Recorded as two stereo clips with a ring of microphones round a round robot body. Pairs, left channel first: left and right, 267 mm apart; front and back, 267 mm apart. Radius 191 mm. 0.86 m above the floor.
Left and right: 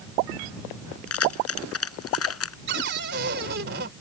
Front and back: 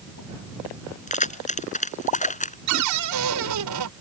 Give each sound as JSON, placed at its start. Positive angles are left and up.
{"t": 1.1, "sound": "keys jangling", "azimuth_deg": 60}
{"t": 2.7, "sound": "a cupboard door", "azimuth_deg": -150}